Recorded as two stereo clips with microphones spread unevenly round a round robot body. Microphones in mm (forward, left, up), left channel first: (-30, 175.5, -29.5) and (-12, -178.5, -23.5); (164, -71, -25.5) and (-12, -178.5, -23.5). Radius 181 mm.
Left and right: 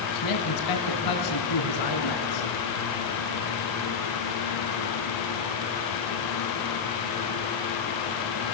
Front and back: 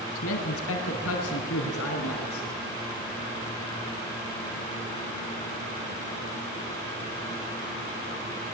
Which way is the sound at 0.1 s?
60° left.